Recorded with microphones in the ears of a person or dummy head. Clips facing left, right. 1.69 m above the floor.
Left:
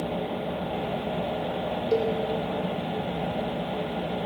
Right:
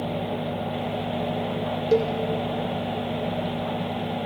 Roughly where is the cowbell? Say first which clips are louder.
Right 4 dB; right.